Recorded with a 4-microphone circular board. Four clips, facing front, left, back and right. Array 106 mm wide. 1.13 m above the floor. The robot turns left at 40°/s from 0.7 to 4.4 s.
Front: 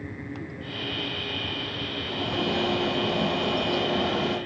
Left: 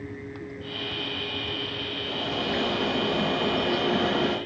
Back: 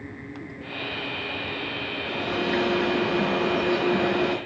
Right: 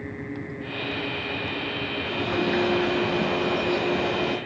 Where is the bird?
115° right, 4 m; by 4.4 s 150° left, 4 m.